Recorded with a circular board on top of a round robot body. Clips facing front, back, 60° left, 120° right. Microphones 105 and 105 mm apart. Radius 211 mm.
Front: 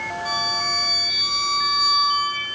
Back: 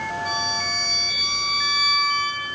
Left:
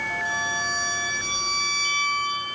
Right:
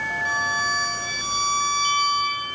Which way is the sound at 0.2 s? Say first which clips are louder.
Front 1 dB, right 5 dB; 85° right.